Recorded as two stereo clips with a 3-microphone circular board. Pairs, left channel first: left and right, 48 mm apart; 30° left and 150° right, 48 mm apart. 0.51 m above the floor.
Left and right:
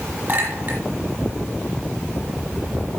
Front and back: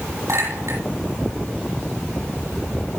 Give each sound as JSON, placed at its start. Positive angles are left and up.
{"t": 0.3, "sound": "a clink", "azimuth_deg": -155, "distance_m": 9.5}